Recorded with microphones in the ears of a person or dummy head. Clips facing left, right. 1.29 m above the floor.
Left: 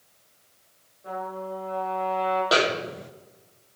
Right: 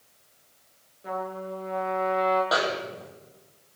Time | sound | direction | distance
1.0 | a trumpet | 25° right (ahead or behind) | 9 m
2.5 | a snare drum | 30° left (ahead or behind) | 1.0 m